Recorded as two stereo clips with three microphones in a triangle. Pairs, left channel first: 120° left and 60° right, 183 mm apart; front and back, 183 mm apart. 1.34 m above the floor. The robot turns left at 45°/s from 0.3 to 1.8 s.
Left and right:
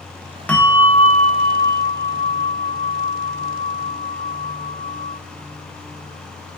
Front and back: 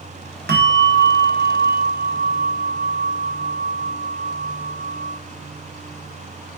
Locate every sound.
0.5 s a bell: 155° right, 1.2 m; by 5.2 s 145° left, 1.2 m